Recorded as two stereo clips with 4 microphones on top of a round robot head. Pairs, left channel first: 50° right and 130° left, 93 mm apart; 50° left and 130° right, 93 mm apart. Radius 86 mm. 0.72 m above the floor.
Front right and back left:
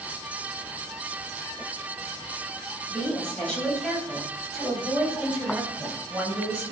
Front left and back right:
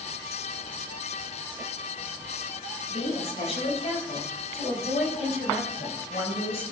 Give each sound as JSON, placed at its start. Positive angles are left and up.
{"t": 2.9, "sound": "a woman speaking", "azimuth_deg": 25, "distance_m": 4.0}